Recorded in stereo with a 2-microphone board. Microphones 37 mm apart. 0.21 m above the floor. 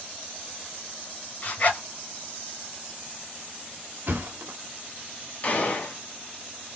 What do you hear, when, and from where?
1.4 s a zipper: 40° left (ahead or behind), 2 m
4.1 s a thud: 70° right (ahead or behind), 1.0 m
5.4 s a gunshot: 40° left (ahead or behind), 1.2 m